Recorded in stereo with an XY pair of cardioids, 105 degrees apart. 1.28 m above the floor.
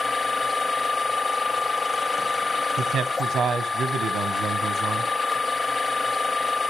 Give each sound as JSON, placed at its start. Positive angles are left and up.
{"t": 0.0, "sound": "a machine running", "azimuth_deg": 25, "distance_m": 0.7}
{"t": 2.8, "sound": "a man speaking", "azimuth_deg": -65, "distance_m": 1.0}